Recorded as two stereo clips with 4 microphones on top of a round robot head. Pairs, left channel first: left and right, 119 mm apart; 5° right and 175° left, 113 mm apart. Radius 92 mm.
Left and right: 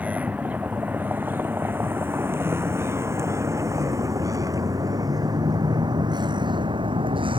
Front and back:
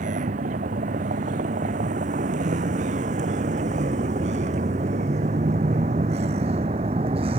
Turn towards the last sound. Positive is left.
turn(degrees=-135)